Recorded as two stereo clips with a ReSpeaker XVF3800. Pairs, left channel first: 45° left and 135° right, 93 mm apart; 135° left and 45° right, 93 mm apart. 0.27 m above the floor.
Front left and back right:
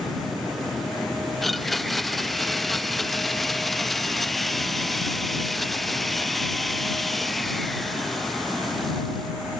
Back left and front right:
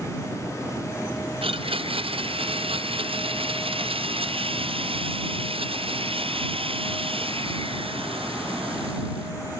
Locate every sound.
1.4 s a blender: 45° right